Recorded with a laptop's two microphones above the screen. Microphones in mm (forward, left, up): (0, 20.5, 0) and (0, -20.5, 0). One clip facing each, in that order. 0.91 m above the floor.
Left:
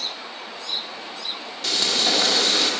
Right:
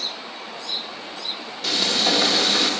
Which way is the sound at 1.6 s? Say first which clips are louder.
Right 1 dB; centre (ahead or behind).